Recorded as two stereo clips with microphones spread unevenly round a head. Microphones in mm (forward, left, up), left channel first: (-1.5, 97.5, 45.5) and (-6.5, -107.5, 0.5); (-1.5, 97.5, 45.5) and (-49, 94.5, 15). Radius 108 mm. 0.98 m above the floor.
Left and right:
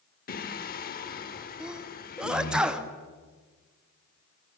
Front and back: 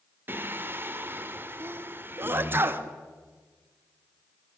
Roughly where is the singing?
Behind left.